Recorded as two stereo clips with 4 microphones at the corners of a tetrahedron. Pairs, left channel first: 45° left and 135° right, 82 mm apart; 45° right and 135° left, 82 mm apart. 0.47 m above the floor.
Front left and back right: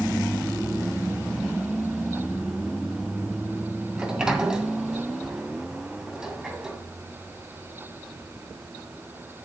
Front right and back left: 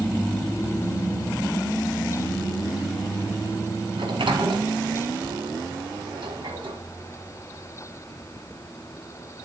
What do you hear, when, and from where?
4.0 s a sliding door: 145° left, 1.9 m